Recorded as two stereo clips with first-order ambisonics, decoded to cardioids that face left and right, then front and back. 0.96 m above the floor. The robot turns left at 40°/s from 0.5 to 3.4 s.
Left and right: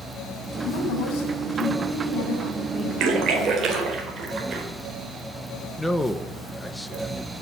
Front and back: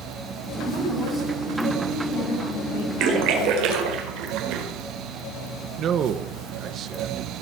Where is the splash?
135° right, 4 m; by 4.7 s 150° right, 4 m.